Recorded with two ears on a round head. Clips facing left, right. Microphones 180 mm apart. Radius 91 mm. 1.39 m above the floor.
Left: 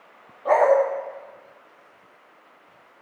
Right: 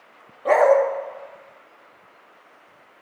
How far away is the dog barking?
About 0.9 m.